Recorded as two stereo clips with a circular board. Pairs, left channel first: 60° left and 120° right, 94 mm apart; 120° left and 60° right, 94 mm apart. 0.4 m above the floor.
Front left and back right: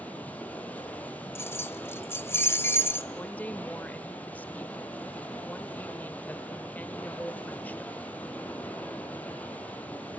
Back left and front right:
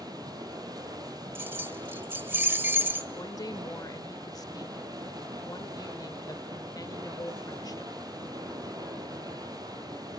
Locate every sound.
0.0 s running water: 15° right, 2.5 m
1.4 s keys jangling: straight ahead, 1.2 m
3.1 s a woman speaking: 125° left, 1.2 m